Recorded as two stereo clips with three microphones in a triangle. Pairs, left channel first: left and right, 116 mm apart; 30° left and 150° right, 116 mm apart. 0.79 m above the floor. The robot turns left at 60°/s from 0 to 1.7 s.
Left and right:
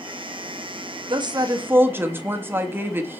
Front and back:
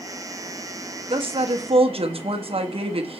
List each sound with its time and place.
1.1 s a woman speaking: 120° right, 1.0 m; by 3.2 s 160° right, 1.0 m